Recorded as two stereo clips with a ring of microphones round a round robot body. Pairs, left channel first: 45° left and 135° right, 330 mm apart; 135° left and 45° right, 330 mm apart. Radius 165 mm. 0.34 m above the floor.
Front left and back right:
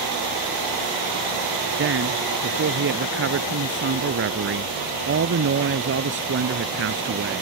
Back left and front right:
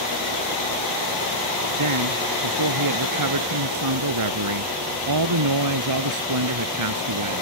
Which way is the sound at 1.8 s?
80° right.